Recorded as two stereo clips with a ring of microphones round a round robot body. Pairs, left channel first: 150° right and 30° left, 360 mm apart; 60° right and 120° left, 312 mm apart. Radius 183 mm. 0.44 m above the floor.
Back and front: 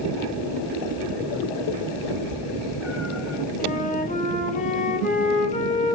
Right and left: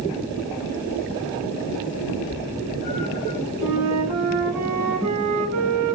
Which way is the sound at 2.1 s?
55° right.